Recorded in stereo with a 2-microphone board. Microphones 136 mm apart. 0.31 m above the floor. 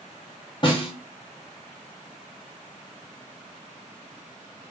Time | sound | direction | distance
0.6 | a snare drum | 35° left (ahead or behind) | 1.5 m